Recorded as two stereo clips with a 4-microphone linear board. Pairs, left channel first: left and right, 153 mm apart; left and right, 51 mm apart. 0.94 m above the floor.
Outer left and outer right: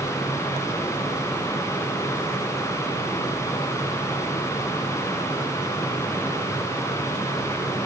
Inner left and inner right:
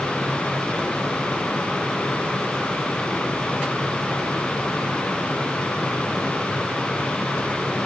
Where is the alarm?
I don't hear an alarm.